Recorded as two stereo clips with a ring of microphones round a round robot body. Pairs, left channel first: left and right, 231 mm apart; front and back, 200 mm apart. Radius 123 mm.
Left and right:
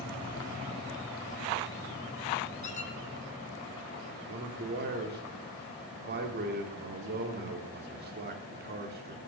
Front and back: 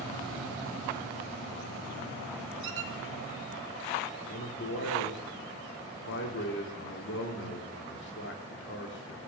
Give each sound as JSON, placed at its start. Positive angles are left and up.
{"t": 2.6, "sound": "a squeak", "azimuth_deg": 150, "distance_m": 1.4}
{"t": 4.3, "sound": "a man speaking", "azimuth_deg": -40, "distance_m": 1.7}